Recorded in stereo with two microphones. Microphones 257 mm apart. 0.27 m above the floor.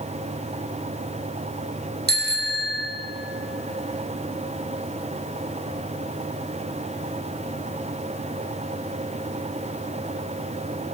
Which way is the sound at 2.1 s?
40° right (ahead or behind).